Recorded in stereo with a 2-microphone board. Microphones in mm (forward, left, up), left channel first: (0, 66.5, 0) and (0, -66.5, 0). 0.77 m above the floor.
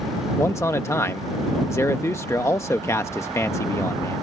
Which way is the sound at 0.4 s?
25° left (ahead or behind).